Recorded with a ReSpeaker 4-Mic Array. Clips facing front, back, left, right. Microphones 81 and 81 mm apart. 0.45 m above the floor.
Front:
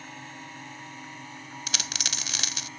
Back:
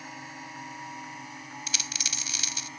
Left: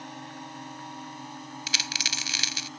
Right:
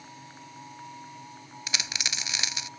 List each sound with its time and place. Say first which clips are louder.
0.0 s a drone: back 1 dB, left 6 dB; 95° left
1.7 s a dropped coin: front 4 dB, left 1 dB; 25° right